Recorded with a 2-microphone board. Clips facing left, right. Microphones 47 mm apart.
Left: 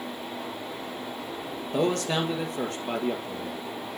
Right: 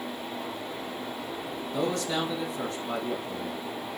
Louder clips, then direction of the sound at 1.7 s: Left 3 dB; 55° left (ahead or behind).